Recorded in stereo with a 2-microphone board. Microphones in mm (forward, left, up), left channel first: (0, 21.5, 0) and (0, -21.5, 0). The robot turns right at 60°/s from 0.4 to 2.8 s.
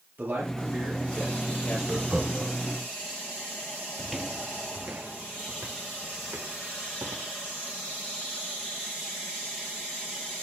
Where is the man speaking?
45° right, 9 m; by 1.8 s 35° left, 9 m.